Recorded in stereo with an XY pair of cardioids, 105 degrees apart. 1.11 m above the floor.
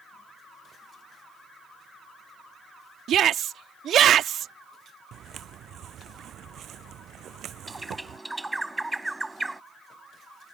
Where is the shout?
65° right.